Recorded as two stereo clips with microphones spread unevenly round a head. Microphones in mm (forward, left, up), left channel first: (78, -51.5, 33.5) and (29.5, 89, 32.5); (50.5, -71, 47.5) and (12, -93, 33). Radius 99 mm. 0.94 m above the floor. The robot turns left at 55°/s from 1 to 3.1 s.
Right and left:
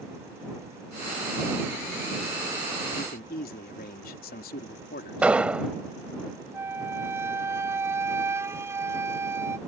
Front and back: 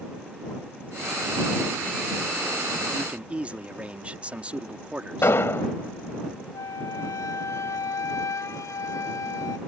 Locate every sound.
2.9 s a man speaking: 85° right; by 5.4 s 95° right
5.2 s an explosion: 25° left
6.5 s a flute: 35° left